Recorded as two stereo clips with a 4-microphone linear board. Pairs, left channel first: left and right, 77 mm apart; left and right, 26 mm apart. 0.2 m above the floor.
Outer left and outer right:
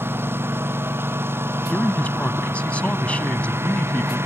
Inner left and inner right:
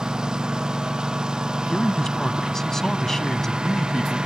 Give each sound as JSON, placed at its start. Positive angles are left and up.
{"t": 0.0, "sound": "a lawn mower", "side_deg": -30}
{"t": 1.7, "sound": "a man speaking", "side_deg": 20}